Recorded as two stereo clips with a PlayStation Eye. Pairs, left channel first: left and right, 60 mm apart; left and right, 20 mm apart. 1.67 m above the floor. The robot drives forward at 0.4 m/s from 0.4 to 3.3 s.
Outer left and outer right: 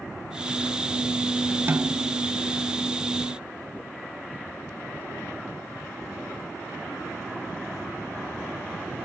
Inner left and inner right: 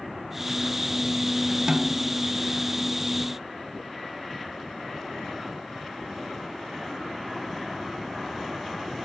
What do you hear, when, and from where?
1.7 s a snare drum: 40° right (ahead or behind); by 2.2 s 35° right (ahead or behind)